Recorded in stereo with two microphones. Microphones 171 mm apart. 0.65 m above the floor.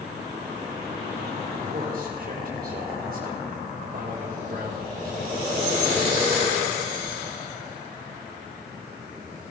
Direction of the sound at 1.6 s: 50° right (ahead or behind).